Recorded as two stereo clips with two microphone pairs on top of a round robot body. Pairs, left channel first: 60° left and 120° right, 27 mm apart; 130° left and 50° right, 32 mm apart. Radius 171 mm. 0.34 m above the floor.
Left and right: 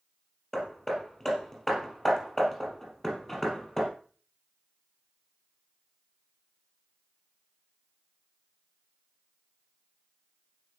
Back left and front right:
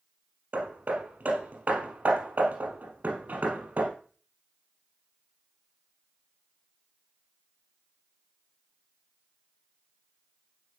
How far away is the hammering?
About 3.5 m.